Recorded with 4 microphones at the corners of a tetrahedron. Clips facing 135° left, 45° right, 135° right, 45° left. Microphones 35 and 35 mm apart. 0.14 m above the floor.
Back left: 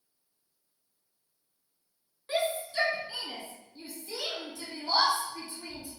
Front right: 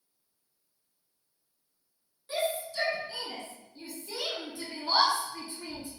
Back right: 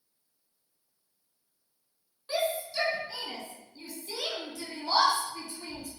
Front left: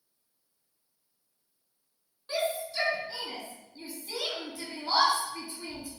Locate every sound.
2.3 s a shout: 145° left, 1.6 m; by 5.9 s 15° right, 1.8 m